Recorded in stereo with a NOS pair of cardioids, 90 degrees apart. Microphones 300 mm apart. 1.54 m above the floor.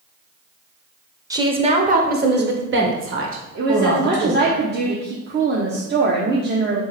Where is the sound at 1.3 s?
10° right, 0.9 m; by 4.5 s 55° right, 2.5 m.